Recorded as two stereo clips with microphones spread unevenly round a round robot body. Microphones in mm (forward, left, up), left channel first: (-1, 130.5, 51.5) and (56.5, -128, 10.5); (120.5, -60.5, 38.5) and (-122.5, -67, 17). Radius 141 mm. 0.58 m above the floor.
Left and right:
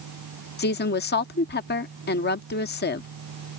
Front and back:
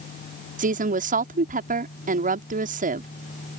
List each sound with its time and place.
0.6 s a woman speaking: 150° left